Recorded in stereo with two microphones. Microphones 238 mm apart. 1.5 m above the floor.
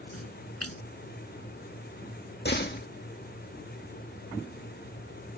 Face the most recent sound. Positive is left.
turn(degrees=45)  # may be behind; listen again after turning